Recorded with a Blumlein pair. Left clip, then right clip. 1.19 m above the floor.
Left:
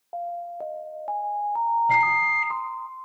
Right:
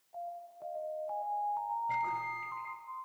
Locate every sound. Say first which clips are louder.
0.1 s an alarm: left 12 dB; 45° left, 2.5 m
1.9 s a microwave: left 15 dB; 55° left, 5 m